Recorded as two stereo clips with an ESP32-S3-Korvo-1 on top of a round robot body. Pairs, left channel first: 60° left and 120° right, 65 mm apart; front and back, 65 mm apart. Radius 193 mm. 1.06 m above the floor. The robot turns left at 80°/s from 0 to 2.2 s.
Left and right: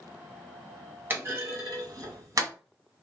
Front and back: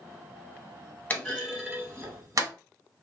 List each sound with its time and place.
1.1 s a clunk: 65° right, 1.6 m; by 2.5 s 150° right, 1.6 m